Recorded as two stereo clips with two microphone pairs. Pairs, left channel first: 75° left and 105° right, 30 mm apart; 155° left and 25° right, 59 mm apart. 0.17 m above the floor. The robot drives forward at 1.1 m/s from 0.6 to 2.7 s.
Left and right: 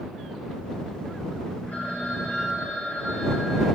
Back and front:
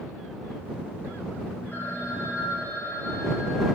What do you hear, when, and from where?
1.7 s a phone ringing: 100° left, 8 m; by 3.6 s 110° left, 8.5 m